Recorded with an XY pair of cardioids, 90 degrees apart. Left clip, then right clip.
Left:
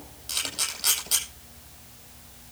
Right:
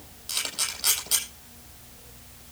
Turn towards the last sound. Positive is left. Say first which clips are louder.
# even
turn(degrees=0)